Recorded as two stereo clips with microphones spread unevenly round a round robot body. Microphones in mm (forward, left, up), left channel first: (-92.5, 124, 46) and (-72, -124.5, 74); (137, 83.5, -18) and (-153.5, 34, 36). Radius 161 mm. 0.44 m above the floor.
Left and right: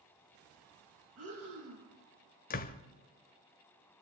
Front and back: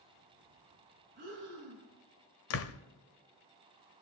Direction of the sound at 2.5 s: 40° left.